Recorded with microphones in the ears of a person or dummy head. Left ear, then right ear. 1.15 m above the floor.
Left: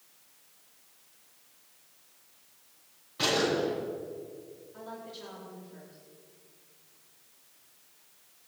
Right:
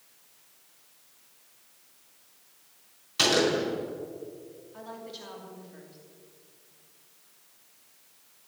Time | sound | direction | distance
3.2 | a gunshot | 70° right (ahead or behind) | 5.5 m
4.7 | a woman speaking | 10° right (ahead or behind) | 2.5 m